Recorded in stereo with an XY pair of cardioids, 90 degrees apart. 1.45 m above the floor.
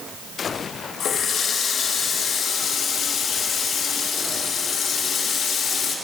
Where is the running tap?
70° left, 1.8 m.